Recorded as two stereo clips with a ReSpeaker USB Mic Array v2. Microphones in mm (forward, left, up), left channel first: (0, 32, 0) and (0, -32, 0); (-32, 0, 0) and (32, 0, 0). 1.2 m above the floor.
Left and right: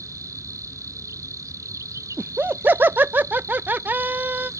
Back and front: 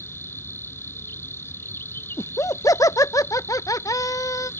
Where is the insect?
125° right.